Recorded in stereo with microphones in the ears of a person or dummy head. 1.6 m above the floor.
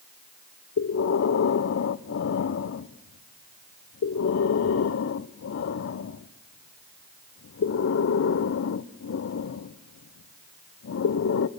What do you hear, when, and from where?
0.8 s breathing: 60° left (ahead or behind), 0.8 m